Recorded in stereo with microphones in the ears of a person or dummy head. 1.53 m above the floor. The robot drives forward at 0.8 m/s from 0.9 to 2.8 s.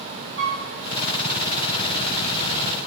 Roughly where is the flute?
Right.